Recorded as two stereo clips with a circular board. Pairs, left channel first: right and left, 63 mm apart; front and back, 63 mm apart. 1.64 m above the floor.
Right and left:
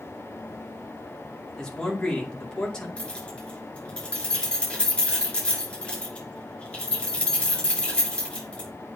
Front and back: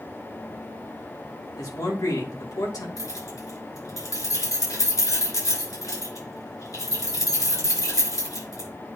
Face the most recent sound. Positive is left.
turn(degrees=-15)